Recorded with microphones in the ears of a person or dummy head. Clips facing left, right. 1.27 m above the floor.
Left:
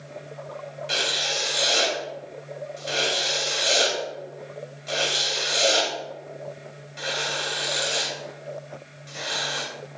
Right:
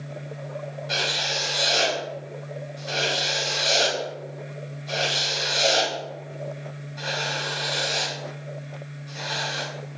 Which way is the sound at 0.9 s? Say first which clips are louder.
Even; 35° left (ahead or behind).